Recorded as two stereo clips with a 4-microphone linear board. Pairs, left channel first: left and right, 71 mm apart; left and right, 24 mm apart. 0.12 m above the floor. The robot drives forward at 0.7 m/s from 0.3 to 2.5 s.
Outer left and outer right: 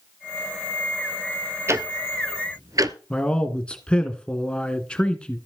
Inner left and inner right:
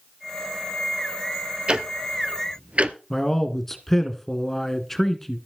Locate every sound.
1.7 s ticking: 40° right (ahead or behind), 1.3 m; by 3.0 s 55° right (ahead or behind), 1.0 m
3.1 s a man speaking: 15° left (ahead or behind), 1.6 m